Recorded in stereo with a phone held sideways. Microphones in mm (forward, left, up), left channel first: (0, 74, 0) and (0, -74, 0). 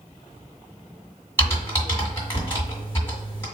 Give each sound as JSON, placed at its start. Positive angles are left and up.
{"t": 1.4, "sound": "typing on a keyboard", "side_deg": 15, "distance_m": 1.9}